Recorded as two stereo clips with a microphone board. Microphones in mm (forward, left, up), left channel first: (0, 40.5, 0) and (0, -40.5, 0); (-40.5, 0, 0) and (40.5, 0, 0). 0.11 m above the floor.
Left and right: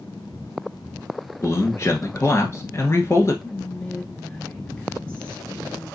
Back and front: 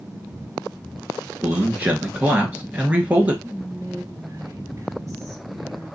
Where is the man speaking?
60° left, 1.6 m.